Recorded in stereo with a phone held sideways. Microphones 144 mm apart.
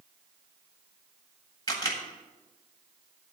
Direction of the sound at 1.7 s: 25° left (ahead or behind).